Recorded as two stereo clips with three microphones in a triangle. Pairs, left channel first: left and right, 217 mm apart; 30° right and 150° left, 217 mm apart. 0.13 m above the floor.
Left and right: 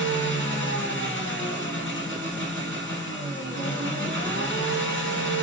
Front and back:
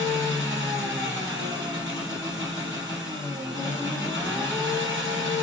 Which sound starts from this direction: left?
An engine running, at 0.0 s.